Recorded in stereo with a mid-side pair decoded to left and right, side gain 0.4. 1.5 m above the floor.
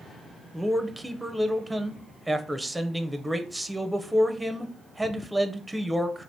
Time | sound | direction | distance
0.5 | a man speaking | 5° right | 0.8 m